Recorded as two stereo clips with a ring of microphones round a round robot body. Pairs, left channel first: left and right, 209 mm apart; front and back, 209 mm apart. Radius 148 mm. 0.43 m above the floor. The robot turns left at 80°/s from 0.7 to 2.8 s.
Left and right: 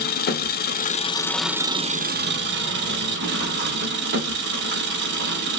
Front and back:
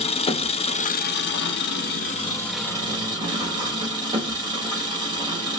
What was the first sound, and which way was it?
An engine running, 55° left.